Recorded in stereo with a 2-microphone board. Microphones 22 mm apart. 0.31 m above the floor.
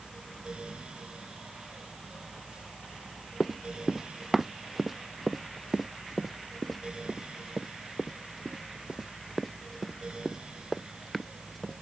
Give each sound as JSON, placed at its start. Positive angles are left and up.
{"t": 3.4, "sound": "running footsteps", "side_deg": -15}